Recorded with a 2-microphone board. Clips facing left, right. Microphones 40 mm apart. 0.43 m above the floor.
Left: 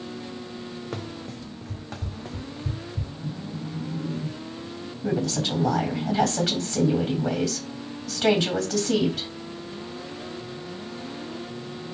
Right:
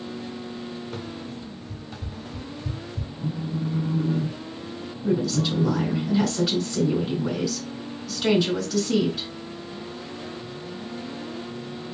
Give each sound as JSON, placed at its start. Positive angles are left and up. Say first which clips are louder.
{"t": 0.9, "sound": "running footsteps", "louder": "even", "side_deg": 55, "distance_m": 1.0}
{"t": 3.2, "sound": "a phone buzzing", "louder": "right 8 dB", "side_deg": -50, "distance_m": 0.5}
{"t": 5.0, "sound": "a woman speaking", "louder": "right 2 dB", "side_deg": 60, "distance_m": 2.5}